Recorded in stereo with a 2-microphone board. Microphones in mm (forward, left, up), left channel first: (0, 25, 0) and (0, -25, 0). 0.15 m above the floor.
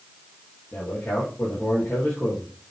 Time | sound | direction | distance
0.7 | a man speaking | 40° left (ahead or behind) | 4.5 m